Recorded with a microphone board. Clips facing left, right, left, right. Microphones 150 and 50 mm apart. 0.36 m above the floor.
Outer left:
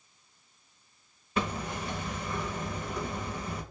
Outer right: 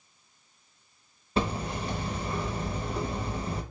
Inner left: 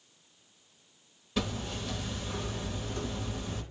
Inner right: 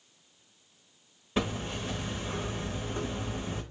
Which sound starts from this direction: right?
Hammering, at 1.4 s.